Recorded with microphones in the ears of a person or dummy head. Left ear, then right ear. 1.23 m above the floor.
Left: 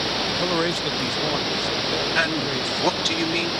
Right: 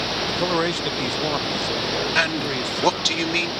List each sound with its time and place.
0.3 s a man speaking: 10° right (ahead or behind)
2.1 s a man speaking: 15° right (ahead or behind)